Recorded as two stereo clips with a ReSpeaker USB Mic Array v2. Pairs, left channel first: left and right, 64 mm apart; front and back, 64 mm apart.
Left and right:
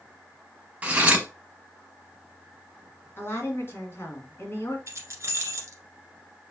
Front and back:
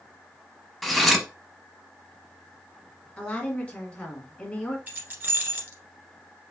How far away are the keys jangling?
About 1.6 m.